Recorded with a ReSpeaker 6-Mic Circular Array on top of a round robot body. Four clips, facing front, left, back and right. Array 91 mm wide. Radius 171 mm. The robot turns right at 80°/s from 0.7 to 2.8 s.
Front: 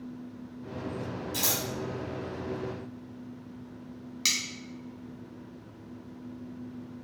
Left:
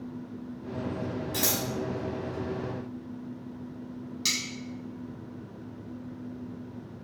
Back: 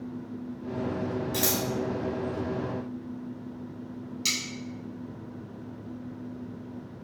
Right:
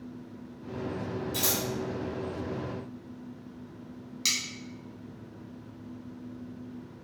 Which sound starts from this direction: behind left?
Scissors, at 1.3 s.